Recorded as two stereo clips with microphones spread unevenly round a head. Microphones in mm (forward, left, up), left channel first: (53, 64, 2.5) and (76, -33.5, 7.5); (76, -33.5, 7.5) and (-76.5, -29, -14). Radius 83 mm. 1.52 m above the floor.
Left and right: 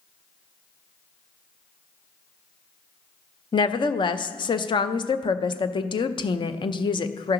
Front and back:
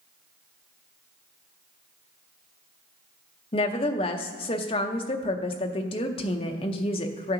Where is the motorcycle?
No motorcycle in this recording.